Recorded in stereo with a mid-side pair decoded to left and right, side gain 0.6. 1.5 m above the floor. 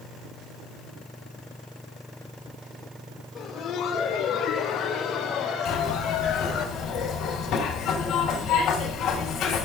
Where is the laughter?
60° left, 1.4 m; by 6.7 s 70° left, 3 m.